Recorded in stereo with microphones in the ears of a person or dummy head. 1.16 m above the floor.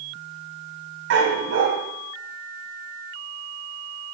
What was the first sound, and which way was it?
A dog barking, 75° right (ahead or behind).